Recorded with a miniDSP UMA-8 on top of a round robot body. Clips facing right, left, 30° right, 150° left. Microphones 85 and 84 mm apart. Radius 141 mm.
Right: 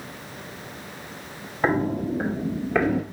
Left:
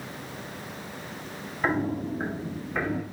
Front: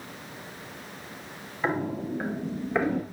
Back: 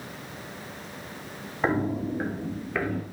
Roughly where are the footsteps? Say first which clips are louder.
Right 4 dB, back 3 dB; behind right.